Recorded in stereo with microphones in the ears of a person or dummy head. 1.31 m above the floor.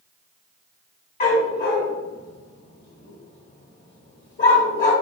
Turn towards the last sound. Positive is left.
turn(degrees=40)  # may be behind; listen again after turning